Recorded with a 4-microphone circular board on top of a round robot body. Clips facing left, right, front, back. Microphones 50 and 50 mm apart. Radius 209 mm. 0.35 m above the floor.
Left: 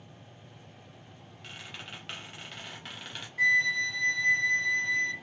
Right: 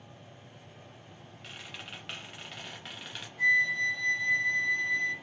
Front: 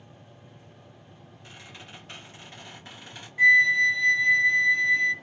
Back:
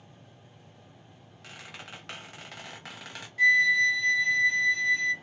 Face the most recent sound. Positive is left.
turn(degrees=70)